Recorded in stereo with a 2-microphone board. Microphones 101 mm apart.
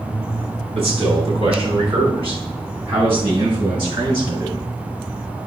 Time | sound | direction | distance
0.8 | a man speaking | 70° right (ahead or behind) | 4.5 m